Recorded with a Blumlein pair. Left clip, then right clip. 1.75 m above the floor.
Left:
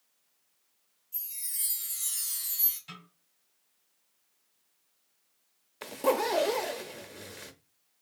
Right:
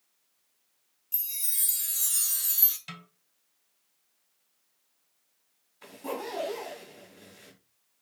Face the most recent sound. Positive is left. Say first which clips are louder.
# left 9 dB
turn(degrees=40)